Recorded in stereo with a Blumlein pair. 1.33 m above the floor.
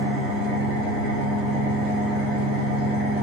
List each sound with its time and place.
0.0 s an engine running: 35° left, 2.0 m